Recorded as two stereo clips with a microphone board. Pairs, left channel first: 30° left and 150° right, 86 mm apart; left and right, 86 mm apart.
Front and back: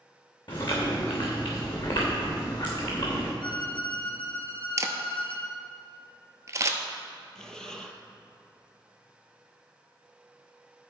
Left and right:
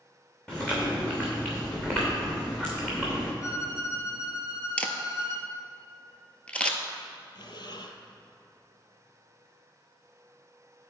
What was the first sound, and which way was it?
Chewing, 10° left.